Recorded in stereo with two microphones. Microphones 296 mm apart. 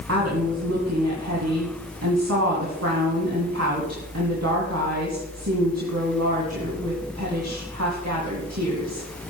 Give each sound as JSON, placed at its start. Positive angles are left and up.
{"t": 0.1, "sound": "a woman speaking", "side_deg": -60, "distance_m": 2.5}